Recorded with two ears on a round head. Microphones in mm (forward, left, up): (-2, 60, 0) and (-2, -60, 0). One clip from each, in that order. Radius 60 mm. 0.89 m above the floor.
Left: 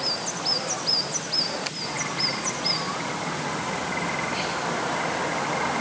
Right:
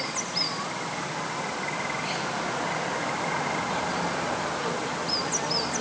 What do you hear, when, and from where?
Only background noise.